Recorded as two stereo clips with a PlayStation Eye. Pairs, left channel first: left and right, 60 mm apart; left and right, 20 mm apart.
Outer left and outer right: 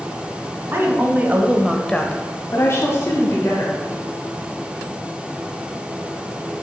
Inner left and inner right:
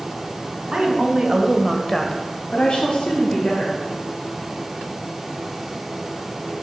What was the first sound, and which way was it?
A woman speaking, 45° right (ahead or behind).